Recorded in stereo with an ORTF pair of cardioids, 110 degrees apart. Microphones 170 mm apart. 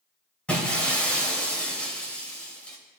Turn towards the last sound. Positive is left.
turn(degrees=5)